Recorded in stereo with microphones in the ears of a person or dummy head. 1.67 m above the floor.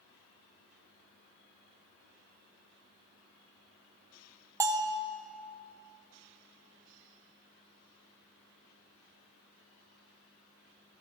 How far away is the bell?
About 0.6 m.